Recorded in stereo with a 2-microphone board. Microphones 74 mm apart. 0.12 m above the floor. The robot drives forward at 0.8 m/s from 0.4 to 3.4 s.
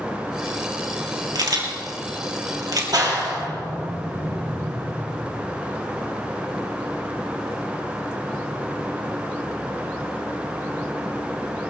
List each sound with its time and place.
1.4 s a camera shutter: 60° right (ahead or behind), 3 m; by 2.8 s 55° right (ahead or behind), 3 m
2.9 s a clap: 60° right (ahead or behind), 3 m; by 4.8 s 55° right (ahead or behind), 3 m